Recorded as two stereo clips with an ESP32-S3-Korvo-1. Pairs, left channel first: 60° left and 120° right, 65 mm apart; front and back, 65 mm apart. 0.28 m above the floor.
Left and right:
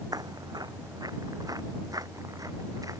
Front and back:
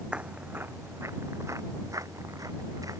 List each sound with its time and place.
0.1 s footsteps: 105° right; by 3.0 s 150° right